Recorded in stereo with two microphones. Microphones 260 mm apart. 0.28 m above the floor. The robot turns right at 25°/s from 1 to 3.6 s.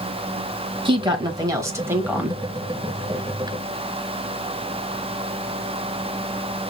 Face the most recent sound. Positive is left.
turn(degrees=25)